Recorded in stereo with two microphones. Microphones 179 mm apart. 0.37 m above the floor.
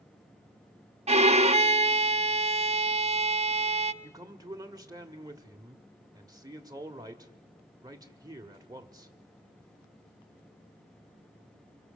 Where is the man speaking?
20° right (ahead or behind), 1.2 m.